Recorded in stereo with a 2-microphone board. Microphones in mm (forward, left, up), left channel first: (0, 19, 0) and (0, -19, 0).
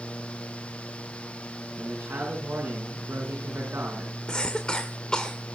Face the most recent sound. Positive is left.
turn(degrees=20)  # may be behind; listen again after turning